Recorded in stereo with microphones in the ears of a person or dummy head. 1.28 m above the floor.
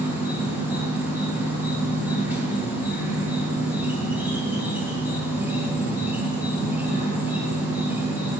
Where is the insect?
5° right (ahead or behind), 1.7 m.